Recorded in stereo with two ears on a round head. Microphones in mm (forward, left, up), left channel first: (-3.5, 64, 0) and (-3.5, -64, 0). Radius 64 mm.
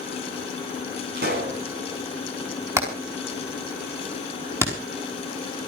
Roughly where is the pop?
Right.